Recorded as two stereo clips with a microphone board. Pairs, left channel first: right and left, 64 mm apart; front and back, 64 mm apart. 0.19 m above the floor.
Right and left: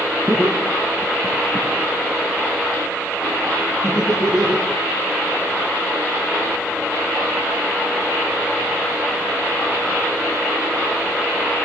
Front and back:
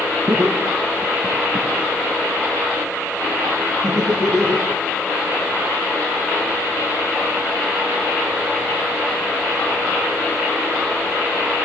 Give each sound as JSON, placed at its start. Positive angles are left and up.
{"t": 0.3, "sound": "laughter", "azimuth_deg": 160, "distance_m": 2.0}